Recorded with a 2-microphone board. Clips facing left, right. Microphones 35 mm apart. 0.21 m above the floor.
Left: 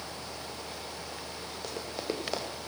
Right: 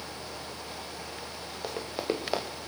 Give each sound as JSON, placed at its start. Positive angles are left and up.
{"t": 1.6, "sound": "running footsteps", "side_deg": -15, "distance_m": 2.5}